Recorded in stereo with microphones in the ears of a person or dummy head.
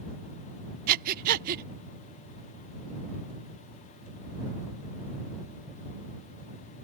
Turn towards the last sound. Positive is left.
turn(degrees=-50)  # may be behind; listen again after turning